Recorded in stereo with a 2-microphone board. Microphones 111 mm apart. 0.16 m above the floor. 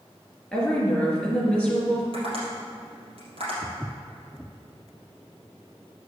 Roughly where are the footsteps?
Centre.